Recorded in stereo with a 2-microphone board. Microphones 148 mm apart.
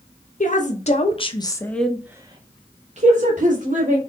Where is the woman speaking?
60° left (ahead or behind), 1.0 m; by 4.0 s 65° right (ahead or behind), 1.4 m.